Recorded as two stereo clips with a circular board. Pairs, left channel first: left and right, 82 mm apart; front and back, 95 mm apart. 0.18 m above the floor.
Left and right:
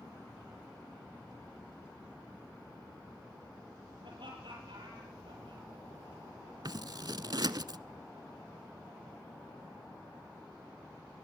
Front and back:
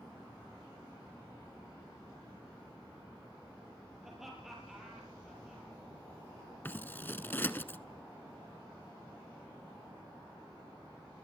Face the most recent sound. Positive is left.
turn(degrees=-65)